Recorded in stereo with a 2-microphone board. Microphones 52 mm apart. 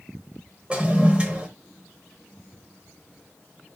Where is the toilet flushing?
20° right (ahead or behind), 0.9 m.